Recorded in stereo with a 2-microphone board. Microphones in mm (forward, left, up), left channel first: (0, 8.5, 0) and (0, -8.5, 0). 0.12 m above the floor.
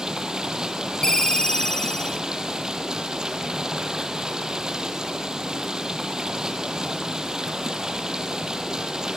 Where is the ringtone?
40° left (ahead or behind), 0.8 m.